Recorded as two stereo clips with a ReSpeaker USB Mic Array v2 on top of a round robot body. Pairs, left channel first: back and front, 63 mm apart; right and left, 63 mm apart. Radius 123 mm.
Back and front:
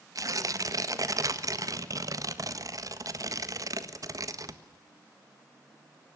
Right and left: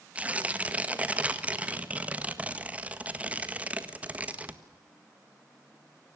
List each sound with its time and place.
0.1 s tearing paper: 25° left, 1.7 m